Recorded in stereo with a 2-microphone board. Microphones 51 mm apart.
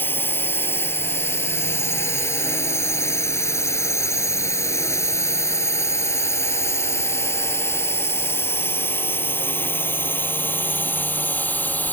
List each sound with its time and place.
0.0 s a drone: 45° left (ahead or behind); by 11.9 s 35° left (ahead or behind)